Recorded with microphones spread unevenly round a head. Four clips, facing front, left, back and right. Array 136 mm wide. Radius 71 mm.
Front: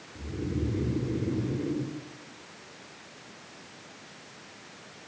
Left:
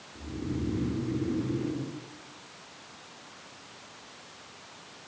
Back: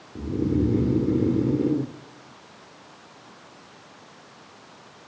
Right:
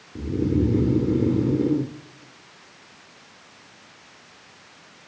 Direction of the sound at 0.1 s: 125° right.